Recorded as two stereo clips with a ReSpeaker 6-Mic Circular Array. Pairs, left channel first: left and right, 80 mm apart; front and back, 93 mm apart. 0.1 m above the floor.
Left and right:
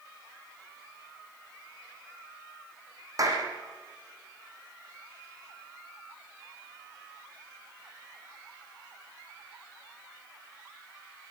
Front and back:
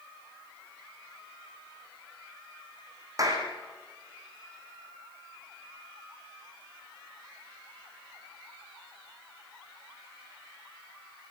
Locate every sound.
3.2 s a clap: 130° right, 5.5 m